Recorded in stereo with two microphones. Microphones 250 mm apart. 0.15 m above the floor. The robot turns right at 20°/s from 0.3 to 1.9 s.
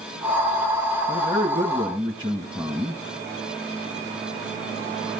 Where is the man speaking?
30° right (ahead or behind), 2 m; by 3.0 s 20° right (ahead or behind), 2 m.